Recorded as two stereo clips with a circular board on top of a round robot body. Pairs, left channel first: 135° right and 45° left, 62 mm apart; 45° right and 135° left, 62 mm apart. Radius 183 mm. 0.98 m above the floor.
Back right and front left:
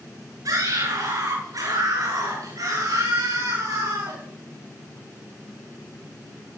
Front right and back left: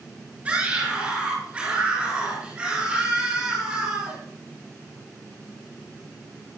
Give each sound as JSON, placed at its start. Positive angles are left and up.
{"t": 0.5, "sound": "a scream", "azimuth_deg": 65, "distance_m": 8.5}